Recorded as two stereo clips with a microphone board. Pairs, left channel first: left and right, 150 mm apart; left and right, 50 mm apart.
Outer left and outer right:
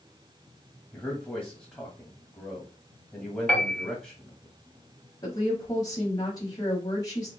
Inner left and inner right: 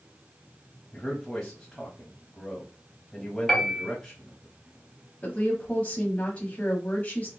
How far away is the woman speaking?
About 1.3 m.